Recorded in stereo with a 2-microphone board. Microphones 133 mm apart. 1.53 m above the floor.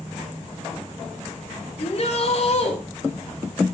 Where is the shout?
50° left (ahead or behind), 2.5 m.